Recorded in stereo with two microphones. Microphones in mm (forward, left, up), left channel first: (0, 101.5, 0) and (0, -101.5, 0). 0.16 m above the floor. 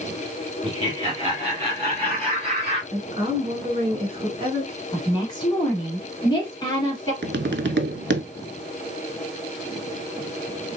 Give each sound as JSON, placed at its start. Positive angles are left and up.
{"t": 0.6, "sound": "laughter", "side_deg": -25, "distance_m": 1.8}
{"t": 2.9, "sound": "a woman speaking", "side_deg": -30, "distance_m": 1.4}
{"t": 4.9, "sound": "a woman speaking", "side_deg": 20, "distance_m": 1.5}
{"t": 7.2, "sound": "tapping", "side_deg": -70, "distance_m": 0.5}